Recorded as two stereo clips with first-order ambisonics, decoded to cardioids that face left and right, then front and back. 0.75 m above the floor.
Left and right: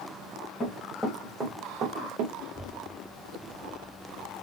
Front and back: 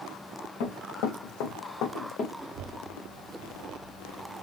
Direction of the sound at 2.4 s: 170° right.